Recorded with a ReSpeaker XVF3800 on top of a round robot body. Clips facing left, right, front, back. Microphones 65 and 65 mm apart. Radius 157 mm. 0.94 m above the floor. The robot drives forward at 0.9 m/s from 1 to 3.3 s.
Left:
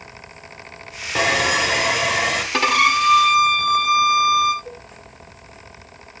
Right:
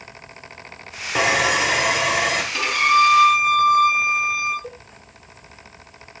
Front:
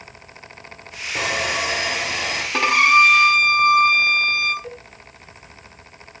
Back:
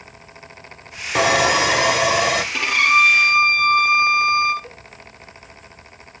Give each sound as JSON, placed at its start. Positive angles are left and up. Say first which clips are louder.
{"t": 1.1, "sound": "sawing", "louder": "even, back 7 dB", "azimuth_deg": -175, "distance_m": 0.6}
{"t": 2.5, "sound": "a violin", "louder": "even, front 4 dB", "azimuth_deg": 55, "distance_m": 1.1}
{"t": 4.6, "sound": "a cowbell", "louder": "even, front 5 dB", "azimuth_deg": -85, "distance_m": 3.0}